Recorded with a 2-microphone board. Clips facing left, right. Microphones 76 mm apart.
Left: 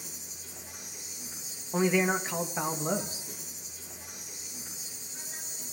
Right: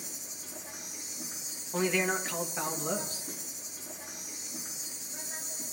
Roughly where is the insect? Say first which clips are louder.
Right 1 dB; right.